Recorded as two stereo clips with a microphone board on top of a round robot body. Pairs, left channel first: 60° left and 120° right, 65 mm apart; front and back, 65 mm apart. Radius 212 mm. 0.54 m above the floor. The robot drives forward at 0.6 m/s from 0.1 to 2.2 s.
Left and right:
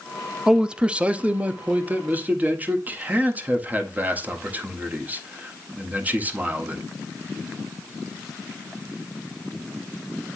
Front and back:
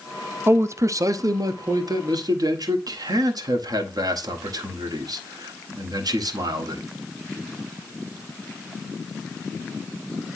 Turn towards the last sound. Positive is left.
turn(degrees=175)